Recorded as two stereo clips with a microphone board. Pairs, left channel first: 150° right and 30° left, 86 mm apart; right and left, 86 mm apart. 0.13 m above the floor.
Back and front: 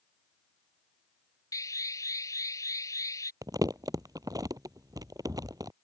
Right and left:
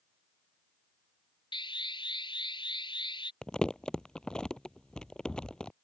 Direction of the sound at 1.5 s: 100° right.